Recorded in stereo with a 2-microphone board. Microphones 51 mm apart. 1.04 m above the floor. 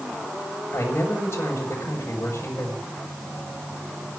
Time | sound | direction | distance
0.7 | a man speaking | 55° left (ahead or behind) | 6.5 m